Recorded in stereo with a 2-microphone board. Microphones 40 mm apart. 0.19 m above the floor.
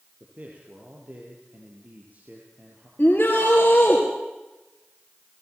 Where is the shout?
50° left (ahead or behind), 3.5 m.